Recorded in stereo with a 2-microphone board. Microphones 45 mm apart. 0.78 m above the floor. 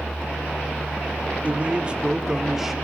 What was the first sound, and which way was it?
A man speaking, 30° right (ahead or behind).